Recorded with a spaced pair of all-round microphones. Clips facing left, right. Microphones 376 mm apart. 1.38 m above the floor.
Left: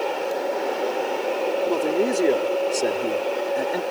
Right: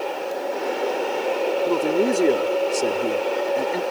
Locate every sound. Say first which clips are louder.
1.7 s a man speaking: right 2 dB; 20° right (ahead or behind); by 3.8 s 10° right (ahead or behind)